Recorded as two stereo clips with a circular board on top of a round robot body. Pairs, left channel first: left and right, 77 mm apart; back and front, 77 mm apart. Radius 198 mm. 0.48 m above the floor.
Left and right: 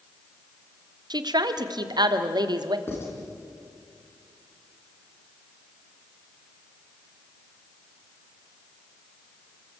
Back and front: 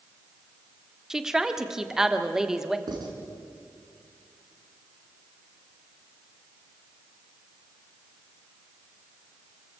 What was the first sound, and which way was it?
A woman speaking, 85° right.